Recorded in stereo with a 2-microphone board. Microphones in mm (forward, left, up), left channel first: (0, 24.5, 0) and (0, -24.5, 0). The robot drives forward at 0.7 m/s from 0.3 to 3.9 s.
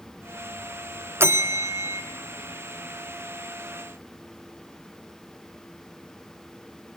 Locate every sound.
1.2 s a bell: 60° right (ahead or behind), 0.9 m